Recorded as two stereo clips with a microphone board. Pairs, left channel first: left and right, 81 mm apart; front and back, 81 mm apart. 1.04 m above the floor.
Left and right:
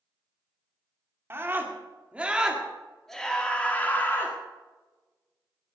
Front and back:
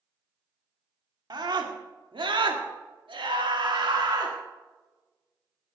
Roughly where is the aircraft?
No aircraft in this recording.